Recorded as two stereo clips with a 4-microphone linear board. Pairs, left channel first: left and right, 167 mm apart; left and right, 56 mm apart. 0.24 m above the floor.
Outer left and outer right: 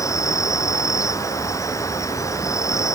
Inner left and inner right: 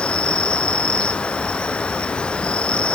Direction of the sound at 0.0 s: 20° left (ahead or behind).